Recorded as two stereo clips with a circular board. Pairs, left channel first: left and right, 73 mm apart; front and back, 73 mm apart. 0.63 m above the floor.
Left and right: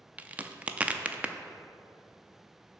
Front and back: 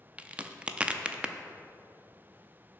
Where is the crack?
130° right, 0.5 m.